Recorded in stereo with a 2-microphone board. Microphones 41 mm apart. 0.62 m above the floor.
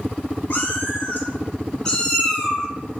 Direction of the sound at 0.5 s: 45° left (ahead or behind).